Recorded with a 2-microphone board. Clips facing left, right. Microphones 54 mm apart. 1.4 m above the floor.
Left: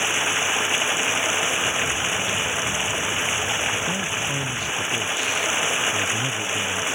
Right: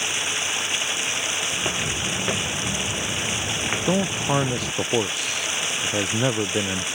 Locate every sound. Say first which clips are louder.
0.0 s running water: left 4 dB; 25° left (ahead or behind)
1.5 s footsteps: left 3 dB; 35° right (ahead or behind); by 4.7 s 45° right (ahead or behind)
3.7 s a man speaking: right 2 dB; 80° right